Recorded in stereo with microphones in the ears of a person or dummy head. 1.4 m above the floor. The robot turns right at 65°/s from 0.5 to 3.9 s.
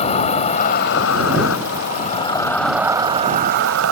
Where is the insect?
35° left; by 3.9 s 105° right.